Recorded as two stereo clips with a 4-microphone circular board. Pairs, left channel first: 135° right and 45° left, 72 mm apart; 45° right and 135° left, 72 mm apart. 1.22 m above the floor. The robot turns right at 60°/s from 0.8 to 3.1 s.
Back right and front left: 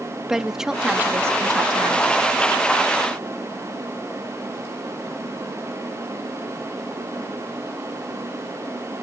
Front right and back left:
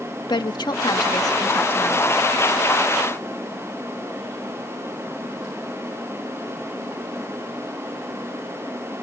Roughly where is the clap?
I don't hear a clap.